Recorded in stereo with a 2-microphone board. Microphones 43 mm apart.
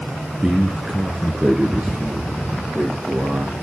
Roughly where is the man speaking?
Centre.